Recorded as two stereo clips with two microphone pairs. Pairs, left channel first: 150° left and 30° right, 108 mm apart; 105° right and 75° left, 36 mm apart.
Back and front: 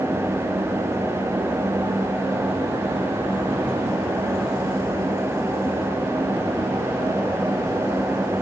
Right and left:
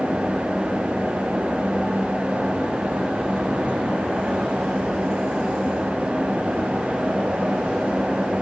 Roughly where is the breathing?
I don't hear breathing.